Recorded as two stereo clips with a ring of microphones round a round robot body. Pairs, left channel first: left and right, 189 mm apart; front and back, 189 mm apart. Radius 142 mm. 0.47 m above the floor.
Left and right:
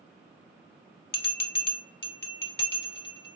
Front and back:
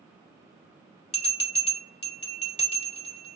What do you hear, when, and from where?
1.1 s a bell: 60° left, 2.5 m